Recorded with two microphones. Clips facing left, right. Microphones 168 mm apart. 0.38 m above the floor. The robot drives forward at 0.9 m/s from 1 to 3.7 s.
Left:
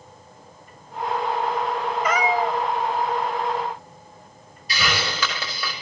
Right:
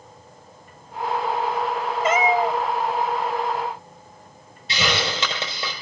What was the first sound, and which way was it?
A cat meowing, 25° right (ahead or behind).